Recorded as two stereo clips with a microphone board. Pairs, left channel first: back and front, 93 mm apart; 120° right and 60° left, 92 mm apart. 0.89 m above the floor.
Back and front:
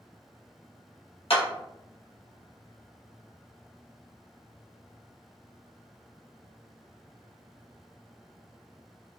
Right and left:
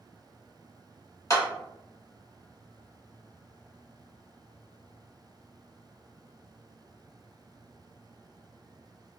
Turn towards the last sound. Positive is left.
turn(degrees=-175)